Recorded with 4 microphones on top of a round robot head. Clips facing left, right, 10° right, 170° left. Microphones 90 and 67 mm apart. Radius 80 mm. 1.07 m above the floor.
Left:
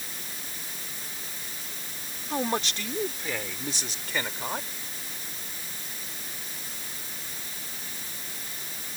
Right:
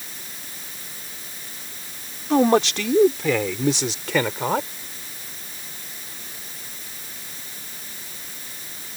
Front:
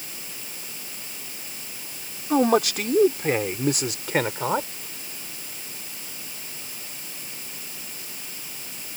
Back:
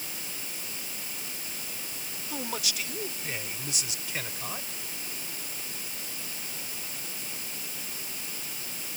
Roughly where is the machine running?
No machine running in this recording.